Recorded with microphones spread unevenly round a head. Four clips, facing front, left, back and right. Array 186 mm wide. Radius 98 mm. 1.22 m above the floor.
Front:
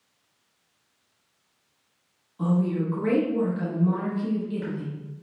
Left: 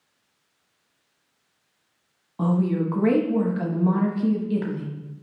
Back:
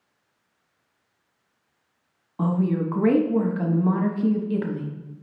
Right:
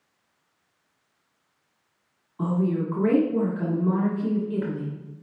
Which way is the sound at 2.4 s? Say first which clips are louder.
Left 2 dB, back 1 dB; 135° left.